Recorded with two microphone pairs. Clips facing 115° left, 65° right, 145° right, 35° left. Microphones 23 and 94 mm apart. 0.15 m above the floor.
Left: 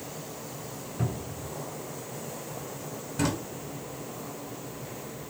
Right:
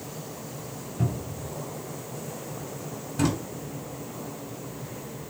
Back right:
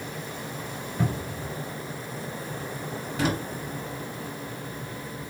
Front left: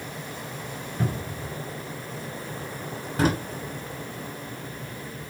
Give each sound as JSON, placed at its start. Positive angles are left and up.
{"t": 1.0, "sound": "a cupboard door", "azimuth_deg": 170, "distance_m": 1.4}
{"t": 3.2, "sound": "a drawer", "azimuth_deg": 20, "distance_m": 0.5}